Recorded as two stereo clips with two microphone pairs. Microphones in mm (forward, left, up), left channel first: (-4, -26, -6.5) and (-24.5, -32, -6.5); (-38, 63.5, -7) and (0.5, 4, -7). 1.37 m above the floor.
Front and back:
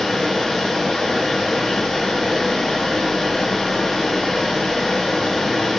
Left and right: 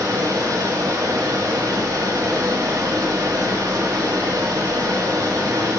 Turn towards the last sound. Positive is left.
turn(degrees=-55)